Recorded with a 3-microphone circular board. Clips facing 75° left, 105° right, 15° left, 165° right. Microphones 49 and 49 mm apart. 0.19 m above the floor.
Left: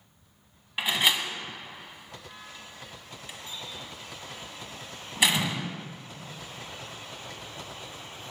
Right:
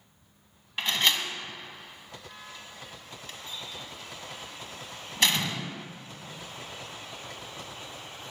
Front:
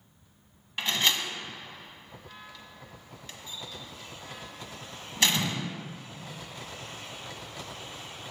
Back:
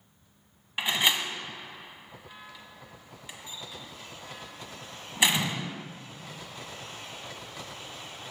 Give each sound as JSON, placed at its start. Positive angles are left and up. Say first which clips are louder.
{"t": 0.8, "sound": "a door slam", "louder": "left 1 dB, back 1 dB", "azimuth_deg": 140, "distance_m": 1.1}